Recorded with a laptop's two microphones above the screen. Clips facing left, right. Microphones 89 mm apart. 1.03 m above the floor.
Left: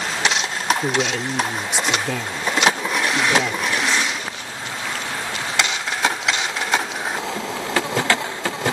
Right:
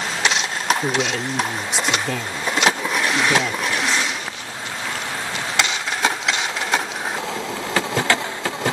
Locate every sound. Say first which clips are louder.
0.8 s a man speaking: even; 5° left (ahead or behind)